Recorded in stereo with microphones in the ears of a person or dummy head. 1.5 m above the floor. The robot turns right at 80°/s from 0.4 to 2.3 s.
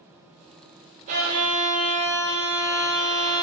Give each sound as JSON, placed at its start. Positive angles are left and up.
{"t": 1.1, "sound": "a violin", "azimuth_deg": -55, "distance_m": 0.6}